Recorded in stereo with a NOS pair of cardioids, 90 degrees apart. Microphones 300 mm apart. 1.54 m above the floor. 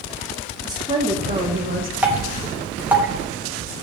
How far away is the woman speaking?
About 2.5 m.